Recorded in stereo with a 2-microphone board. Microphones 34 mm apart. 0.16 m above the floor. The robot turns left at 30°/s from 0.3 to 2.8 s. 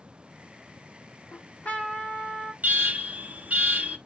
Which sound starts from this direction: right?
An alarm, at 2.6 s.